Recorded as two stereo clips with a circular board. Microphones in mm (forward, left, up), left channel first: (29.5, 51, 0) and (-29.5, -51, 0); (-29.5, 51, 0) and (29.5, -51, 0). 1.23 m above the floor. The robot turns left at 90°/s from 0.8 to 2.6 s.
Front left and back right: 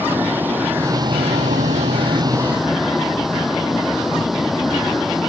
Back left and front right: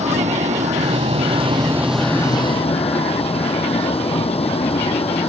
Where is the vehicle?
45° right; by 5.3 s 155° left.